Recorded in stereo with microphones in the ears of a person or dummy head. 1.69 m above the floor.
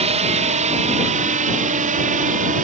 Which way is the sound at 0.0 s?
35° right (ahead or behind).